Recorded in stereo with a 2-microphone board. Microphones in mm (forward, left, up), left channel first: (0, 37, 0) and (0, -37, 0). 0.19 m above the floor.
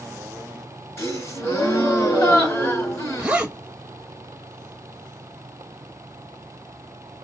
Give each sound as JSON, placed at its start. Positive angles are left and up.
{"t": 1.0, "sound": "a gasp", "side_deg": 40, "distance_m": 2.5}
{"t": 3.2, "sound": "a zipper", "side_deg": -15, "distance_m": 0.7}